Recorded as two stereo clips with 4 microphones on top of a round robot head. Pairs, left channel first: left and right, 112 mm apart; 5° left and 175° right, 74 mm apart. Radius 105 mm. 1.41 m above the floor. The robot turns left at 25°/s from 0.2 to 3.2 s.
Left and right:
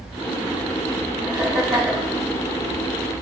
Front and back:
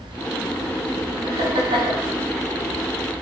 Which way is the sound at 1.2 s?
165° right.